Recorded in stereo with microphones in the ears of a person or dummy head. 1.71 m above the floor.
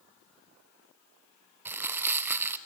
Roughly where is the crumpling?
Centre.